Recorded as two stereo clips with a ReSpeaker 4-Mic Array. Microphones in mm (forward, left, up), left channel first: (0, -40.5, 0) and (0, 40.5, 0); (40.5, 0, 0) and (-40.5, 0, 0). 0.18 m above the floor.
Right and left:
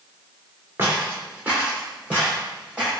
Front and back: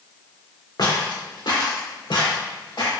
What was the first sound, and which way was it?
Footsteps, 25° left.